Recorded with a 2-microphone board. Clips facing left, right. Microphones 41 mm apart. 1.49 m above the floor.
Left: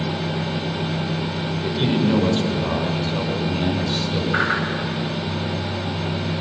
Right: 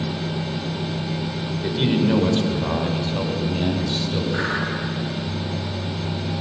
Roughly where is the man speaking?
Centre.